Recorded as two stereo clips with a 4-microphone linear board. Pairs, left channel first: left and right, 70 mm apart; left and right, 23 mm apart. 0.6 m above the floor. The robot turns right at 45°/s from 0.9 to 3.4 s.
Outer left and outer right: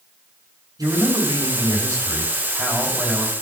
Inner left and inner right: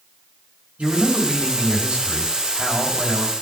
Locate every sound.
0.8 s a man speaking: 110° right, 3.5 m; by 3.3 s straight ahead, 3.5 m